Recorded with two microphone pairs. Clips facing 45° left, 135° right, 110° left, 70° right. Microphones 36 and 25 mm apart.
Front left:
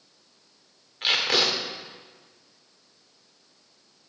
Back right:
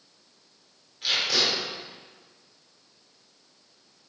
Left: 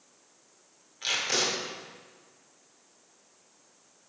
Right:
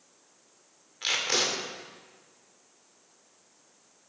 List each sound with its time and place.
1.0 s tape being pulled: 5° left, 2.5 m